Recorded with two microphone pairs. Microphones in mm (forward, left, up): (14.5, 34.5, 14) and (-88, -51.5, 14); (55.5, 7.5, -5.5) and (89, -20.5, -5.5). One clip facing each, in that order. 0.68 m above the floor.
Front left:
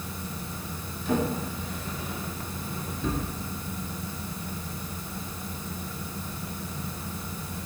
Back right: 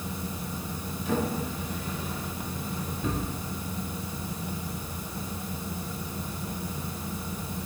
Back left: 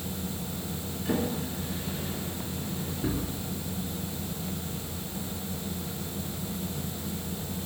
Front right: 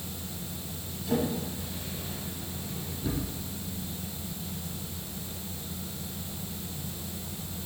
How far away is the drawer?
About 3 m.